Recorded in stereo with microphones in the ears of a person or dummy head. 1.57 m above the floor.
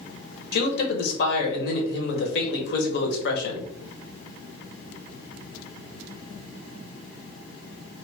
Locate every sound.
0.5 s a man speaking: 70° left (ahead or behind), 1.1 m